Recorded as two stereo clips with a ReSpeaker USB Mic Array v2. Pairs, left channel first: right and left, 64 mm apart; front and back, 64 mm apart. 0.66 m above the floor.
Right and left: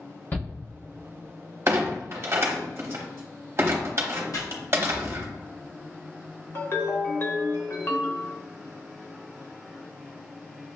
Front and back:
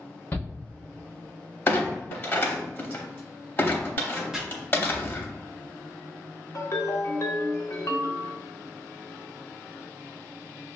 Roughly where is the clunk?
Ahead left.